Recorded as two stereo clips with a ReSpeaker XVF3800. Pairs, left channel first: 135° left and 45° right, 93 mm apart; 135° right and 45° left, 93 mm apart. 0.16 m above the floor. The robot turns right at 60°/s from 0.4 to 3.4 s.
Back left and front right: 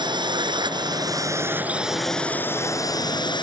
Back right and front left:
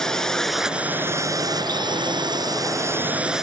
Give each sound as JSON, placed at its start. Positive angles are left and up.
{"t": 0.0, "sound": "a drone", "azimuth_deg": -50}